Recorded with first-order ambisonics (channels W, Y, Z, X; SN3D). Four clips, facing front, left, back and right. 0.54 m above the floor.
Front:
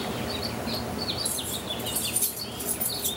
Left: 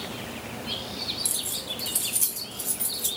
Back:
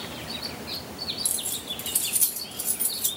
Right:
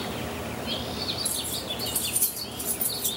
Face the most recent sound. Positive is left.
turn(degrees=160)